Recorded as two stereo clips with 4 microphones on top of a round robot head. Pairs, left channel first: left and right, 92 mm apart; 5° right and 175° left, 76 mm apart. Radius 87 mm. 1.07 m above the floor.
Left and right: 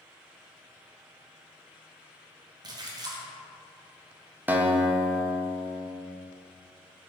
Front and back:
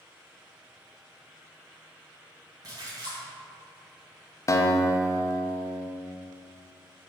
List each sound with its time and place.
2.6 s a splash: 135° right, 0.9 m
4.5 s a guitar: 30° right, 0.6 m